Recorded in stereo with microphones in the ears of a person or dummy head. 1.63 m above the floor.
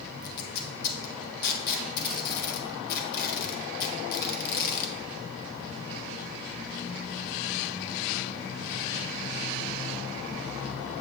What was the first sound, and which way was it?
Tape being pulled, 55° left (ahead or behind).